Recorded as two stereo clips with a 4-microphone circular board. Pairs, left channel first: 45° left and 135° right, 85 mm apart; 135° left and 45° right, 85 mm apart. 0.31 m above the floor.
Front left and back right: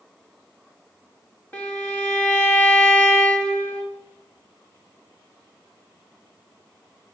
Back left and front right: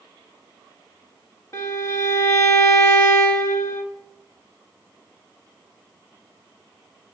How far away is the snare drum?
No snare drum in this recording.